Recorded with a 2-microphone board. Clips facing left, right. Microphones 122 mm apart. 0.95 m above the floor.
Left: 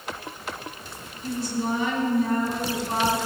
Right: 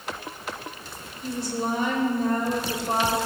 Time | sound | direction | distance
1.2 | a woman speaking | 70° right (ahead or behind) | 3 m